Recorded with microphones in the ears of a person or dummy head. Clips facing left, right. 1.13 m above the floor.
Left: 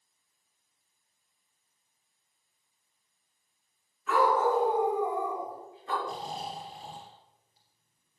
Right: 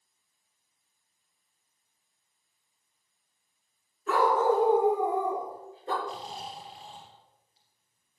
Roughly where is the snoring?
Left.